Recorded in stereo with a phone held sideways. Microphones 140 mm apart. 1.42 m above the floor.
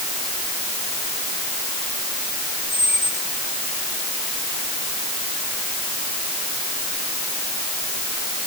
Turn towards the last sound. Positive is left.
turn(degrees=70)  # may be behind; listen again after turning